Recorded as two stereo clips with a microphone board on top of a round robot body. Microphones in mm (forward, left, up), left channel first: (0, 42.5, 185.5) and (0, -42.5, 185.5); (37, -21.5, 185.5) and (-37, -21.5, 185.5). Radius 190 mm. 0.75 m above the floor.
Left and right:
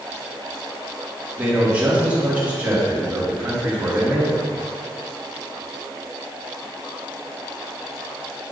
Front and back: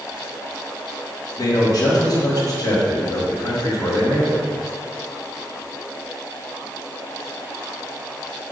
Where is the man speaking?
20° right, 2.0 m.